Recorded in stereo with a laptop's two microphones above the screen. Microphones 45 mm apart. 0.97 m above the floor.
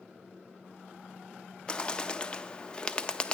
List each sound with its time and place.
1.7 s a bird: 20° left (ahead or behind), 0.5 m